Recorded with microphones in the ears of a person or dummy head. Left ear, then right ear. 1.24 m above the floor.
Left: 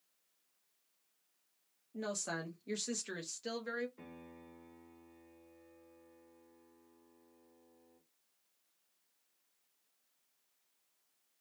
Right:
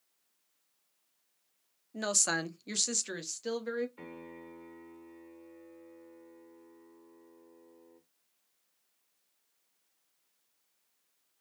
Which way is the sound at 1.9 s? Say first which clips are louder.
Right 9 dB; 40° right (ahead or behind).